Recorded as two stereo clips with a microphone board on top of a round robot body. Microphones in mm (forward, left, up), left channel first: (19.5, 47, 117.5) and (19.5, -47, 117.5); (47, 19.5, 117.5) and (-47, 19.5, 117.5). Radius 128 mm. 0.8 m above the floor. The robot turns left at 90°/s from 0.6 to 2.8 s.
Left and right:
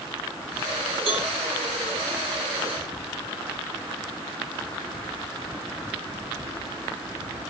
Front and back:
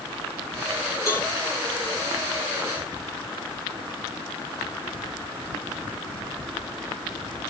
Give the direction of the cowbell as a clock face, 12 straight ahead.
2 o'clock.